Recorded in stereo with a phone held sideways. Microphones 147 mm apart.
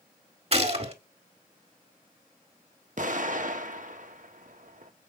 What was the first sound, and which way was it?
A gunshot, 45° right (ahead or behind).